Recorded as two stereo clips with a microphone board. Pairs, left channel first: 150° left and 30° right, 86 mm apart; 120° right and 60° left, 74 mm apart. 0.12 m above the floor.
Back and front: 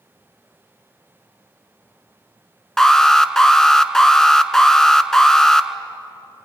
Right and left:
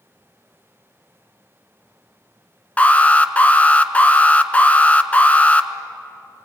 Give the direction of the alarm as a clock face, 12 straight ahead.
5 o'clock.